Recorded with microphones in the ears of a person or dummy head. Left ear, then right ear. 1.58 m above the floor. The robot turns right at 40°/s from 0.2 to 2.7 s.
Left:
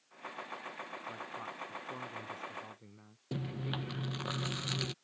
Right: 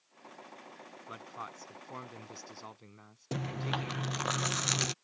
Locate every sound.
1.1 s a man speaking: 110° right; by 4.3 s 45° right
3.3 s chewing: 35° right (ahead or behind)